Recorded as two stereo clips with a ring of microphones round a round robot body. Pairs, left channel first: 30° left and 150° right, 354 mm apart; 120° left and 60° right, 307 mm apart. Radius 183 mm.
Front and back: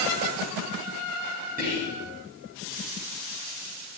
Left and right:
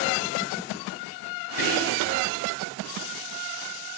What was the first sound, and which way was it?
Whispering, 145° left.